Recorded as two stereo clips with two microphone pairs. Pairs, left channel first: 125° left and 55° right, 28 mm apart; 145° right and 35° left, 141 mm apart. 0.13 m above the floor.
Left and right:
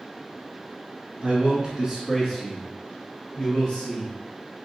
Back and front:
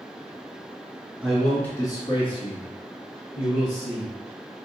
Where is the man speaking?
45° right, 1.5 m; by 4.1 s 175° right, 3.5 m.